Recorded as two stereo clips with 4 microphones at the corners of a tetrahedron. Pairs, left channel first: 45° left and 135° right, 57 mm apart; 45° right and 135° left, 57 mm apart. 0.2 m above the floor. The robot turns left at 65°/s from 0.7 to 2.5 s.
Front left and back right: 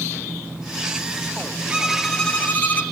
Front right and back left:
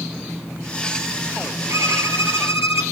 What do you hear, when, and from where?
1.7 s a violin: 155° left, 2.0 m; by 2.8 s 100° left, 2.0 m